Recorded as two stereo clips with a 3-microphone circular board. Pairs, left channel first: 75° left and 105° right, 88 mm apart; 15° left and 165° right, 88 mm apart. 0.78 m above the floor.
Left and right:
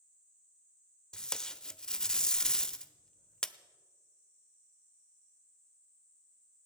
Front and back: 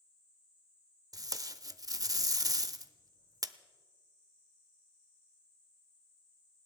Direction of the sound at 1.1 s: 155° left.